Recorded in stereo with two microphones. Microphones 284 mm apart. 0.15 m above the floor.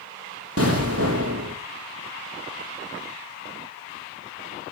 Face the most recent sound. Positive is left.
turn(degrees=-55)  # may be behind; listen again after turning